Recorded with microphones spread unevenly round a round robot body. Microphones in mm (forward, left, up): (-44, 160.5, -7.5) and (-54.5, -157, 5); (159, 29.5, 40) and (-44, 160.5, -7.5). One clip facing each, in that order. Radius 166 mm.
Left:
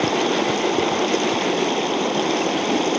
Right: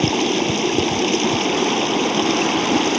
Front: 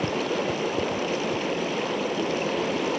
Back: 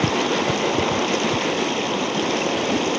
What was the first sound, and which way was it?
Running water, 155° right.